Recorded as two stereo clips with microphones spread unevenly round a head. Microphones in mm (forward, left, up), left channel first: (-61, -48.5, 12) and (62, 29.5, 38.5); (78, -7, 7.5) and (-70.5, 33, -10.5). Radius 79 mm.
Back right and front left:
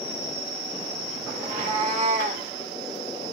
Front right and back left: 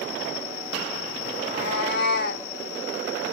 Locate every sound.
1.4 s a cat meowing: 20° right, 1.7 m; by 2.5 s straight ahead, 1.2 m